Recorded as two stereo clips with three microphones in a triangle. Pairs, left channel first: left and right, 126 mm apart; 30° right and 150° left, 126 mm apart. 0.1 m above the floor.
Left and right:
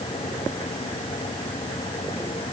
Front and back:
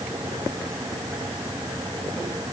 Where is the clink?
I don't hear a clink.